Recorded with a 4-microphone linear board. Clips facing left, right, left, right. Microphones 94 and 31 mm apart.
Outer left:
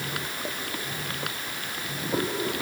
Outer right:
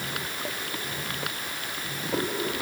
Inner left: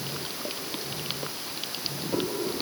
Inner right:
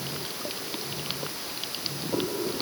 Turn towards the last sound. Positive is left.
No sound to turn to.